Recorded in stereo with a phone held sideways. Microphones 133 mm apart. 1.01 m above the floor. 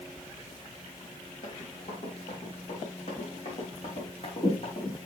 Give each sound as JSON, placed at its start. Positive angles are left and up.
{"t": 1.4, "sound": "running footsteps", "side_deg": 65, "distance_m": 3.5}